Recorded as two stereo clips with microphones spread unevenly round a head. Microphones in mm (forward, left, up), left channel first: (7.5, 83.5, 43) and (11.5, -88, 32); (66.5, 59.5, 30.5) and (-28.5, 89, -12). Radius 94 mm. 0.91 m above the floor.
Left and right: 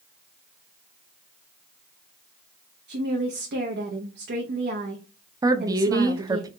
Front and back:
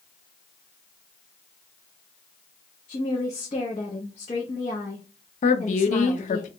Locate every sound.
2.9 s a woman speaking: 75° right, 0.9 m
5.4 s a woman speaking: 25° right, 0.6 m